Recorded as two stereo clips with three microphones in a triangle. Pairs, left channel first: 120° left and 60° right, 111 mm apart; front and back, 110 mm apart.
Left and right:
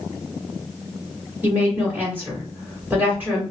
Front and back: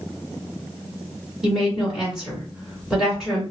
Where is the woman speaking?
100° right, 1.5 m.